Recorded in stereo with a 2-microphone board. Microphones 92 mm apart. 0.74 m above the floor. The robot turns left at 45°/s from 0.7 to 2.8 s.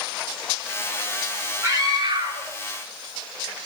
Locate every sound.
1.6 s a scream: 35° right (ahead or behind), 9.5 m; by 3.7 s 85° right, 9.5 m